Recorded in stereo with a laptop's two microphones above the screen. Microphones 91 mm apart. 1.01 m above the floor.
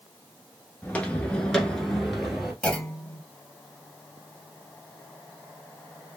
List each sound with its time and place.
0.8 s footsteps: 20° left (ahead or behind), 1.0 m; by 2.5 s 5° right (ahead or behind), 1.2 m
2.6 s a clunk: 10° left (ahead or behind), 0.9 m